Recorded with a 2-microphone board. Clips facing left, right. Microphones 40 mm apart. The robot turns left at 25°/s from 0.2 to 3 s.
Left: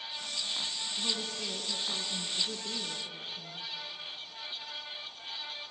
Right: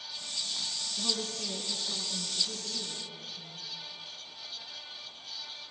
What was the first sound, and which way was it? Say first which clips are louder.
A woman speaking: right 1 dB; straight behind.